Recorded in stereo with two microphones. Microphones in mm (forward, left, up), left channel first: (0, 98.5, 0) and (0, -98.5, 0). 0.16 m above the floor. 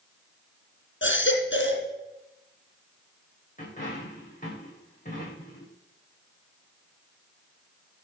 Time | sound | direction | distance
1.0 | a baby crying | 75° left (ahead or behind) | 3.5 m
3.6 | a dropped coin | 40° left (ahead or behind) | 8.5 m